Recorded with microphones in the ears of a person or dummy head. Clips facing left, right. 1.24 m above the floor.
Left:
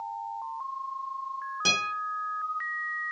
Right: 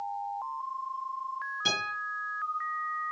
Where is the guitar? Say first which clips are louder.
Left 1 dB; 65° left (ahead or behind), 1.6 m.